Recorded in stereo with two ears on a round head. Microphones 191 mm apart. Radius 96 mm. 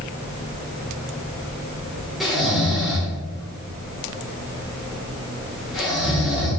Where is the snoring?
Centre (ahead or behind), 5 m.